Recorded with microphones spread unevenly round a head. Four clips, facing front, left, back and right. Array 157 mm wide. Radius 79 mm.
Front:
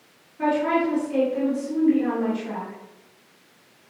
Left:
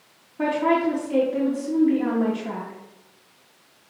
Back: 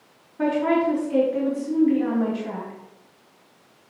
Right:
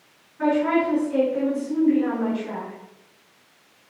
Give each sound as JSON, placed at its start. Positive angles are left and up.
{"t": 0.4, "sound": "a woman speaking", "azimuth_deg": 125, "distance_m": 4.0}